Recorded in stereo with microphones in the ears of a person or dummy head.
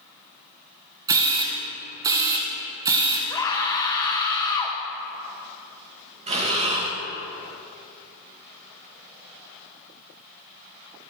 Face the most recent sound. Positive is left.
turn(degrees=-35)  # may be behind; listen again after turning